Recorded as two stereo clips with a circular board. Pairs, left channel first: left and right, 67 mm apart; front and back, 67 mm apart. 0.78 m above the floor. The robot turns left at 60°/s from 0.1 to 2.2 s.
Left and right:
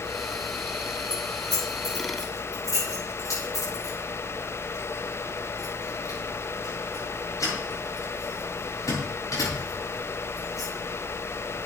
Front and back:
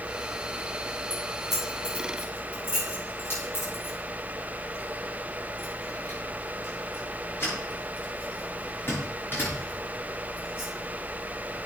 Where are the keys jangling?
120° left, 8 m; by 10.7 s 50° left, 8 m.